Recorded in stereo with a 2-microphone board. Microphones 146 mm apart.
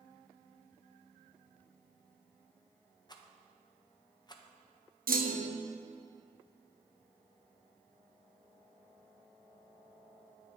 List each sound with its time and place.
3.1 s a rattle: 30° left (ahead or behind), 0.6 m
5.1 s a clunk: 75° right (ahead or behind), 0.6 m